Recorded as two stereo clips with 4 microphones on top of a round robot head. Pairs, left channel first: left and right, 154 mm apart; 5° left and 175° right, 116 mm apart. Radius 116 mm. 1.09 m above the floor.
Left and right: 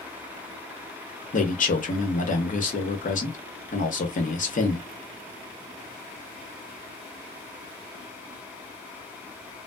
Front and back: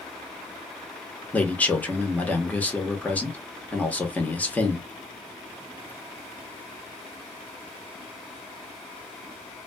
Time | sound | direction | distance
1.3 | a man speaking | 80° left | 1.2 m